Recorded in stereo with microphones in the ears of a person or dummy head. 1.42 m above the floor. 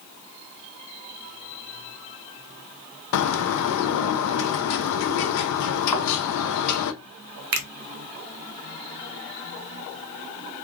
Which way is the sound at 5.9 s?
5° left (ahead or behind).